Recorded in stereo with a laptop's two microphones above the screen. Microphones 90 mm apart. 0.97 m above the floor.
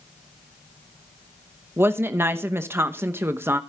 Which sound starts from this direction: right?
A woman speaking, at 1.8 s.